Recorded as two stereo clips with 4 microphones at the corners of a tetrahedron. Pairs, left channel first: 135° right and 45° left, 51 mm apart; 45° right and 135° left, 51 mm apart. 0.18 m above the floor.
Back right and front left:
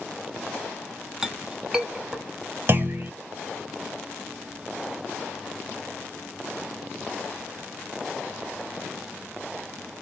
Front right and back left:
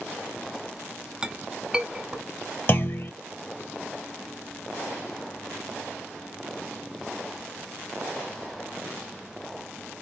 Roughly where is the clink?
Left.